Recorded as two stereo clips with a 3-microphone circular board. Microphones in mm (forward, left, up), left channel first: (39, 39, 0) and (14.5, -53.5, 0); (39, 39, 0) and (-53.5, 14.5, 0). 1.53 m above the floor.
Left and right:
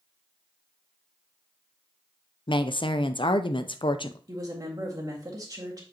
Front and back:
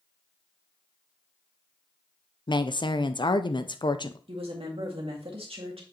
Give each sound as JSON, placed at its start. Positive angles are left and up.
{"t": 2.5, "sound": "a woman speaking", "azimuth_deg": 50, "distance_m": 0.6}
{"t": 4.3, "sound": "a woman speaking", "azimuth_deg": -155, "distance_m": 1.9}